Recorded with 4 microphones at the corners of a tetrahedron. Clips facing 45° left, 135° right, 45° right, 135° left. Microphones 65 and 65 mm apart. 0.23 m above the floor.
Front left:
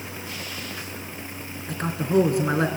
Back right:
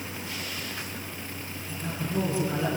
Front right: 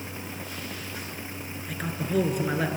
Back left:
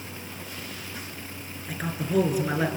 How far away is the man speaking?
About 3.5 m.